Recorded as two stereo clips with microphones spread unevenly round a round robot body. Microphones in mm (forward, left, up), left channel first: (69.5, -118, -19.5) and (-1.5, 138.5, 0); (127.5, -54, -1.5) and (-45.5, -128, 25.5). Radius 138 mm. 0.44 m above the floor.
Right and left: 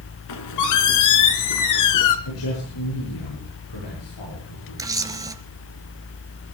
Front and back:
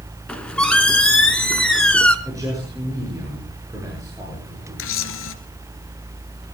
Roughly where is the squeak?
Ahead right.